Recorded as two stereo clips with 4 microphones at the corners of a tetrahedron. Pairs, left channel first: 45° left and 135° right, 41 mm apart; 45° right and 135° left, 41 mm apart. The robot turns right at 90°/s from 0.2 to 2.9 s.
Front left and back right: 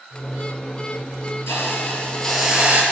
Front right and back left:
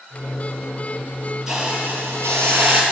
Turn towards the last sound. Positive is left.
turn(degrees=-175)